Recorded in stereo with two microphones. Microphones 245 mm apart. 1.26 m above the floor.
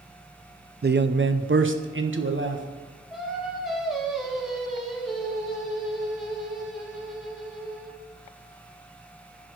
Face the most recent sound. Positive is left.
turn(degrees=0)  # may be behind; listen again after turning